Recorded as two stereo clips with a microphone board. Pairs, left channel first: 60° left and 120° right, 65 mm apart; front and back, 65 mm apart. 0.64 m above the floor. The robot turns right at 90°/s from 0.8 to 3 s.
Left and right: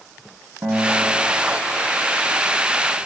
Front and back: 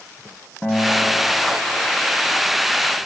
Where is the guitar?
70° right, 1.4 m; by 2.4 s 70° left, 1.4 m.